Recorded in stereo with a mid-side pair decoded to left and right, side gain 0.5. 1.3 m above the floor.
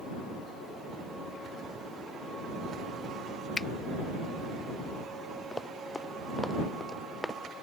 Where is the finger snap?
30° left.